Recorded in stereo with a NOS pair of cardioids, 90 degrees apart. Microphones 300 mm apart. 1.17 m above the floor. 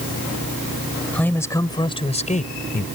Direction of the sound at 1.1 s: 5° left.